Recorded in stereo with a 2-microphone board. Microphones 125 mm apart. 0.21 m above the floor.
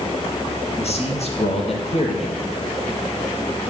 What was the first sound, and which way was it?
A man speaking, 60° left (ahead or behind).